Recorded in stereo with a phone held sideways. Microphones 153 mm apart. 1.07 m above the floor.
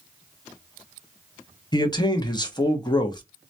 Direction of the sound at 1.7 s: 25° left (ahead or behind).